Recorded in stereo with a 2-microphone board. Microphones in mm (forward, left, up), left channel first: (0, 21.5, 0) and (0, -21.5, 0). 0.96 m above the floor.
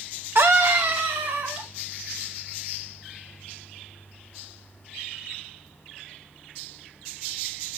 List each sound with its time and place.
0.3 s a scream: 65° right (ahead or behind), 0.7 m; by 1.7 s 70° right (ahead or behind), 2.5 m